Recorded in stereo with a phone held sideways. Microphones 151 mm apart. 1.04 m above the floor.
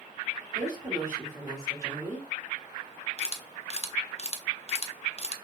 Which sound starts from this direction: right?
A woman speaking, at 0.6 s.